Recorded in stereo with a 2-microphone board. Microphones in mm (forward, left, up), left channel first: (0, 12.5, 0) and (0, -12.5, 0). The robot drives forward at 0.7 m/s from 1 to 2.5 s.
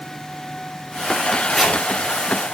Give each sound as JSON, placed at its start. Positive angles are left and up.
{"t": 1.5, "sound": "chopping", "side_deg": 0, "distance_m": 2.5}